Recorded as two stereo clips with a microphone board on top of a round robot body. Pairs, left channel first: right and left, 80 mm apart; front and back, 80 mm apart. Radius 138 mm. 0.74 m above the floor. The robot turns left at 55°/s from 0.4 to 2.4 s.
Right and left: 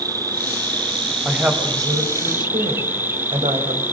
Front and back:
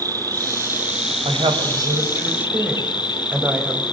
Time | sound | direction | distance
0.0 | an insect | 135° left | 1.9 m
1.2 | a woman speaking | 170° left | 4 m